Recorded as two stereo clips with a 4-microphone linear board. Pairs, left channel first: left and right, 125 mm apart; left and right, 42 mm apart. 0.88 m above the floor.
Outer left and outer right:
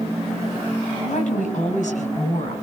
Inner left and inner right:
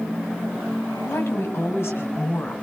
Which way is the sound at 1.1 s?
80° left.